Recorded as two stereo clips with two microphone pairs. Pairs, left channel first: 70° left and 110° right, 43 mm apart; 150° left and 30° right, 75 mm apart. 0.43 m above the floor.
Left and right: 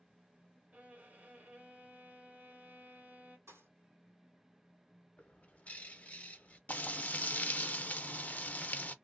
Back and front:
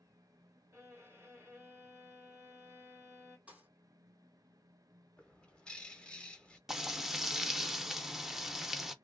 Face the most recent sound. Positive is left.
turn(degrees=55)